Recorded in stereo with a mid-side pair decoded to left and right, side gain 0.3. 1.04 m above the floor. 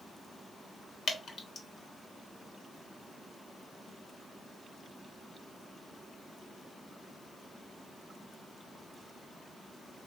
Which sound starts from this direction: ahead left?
Dripping, at 1.1 s.